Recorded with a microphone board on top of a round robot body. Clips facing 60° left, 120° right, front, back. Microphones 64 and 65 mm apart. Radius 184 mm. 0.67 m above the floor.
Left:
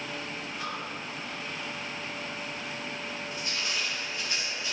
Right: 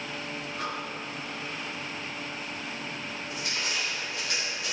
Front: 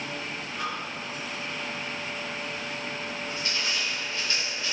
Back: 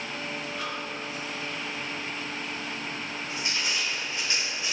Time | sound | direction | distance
0.6 | breathing | 85° right | 2.5 m
3.3 | crushing | 110° right | 3 m